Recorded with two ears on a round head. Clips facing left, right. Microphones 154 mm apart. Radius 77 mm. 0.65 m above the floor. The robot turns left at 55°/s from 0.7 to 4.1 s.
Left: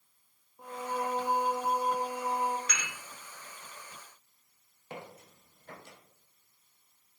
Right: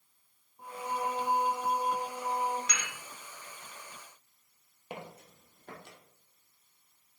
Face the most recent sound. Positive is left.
turn(degrees=-50)  # may be behind; listen again after turning